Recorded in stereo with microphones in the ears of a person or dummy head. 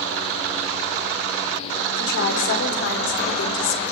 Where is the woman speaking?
70° left (ahead or behind), 4 m; by 3.8 s 80° left, 4 m.